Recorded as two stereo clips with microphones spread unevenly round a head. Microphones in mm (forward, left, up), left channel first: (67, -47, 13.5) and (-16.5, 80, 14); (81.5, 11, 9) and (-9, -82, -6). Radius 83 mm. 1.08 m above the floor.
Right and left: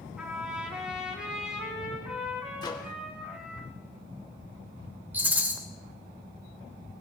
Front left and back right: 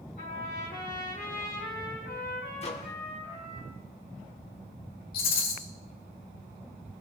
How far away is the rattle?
About 3 m.